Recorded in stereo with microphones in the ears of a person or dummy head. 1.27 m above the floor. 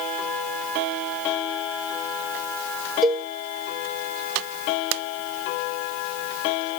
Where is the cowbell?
5° left (ahead or behind), 0.7 m.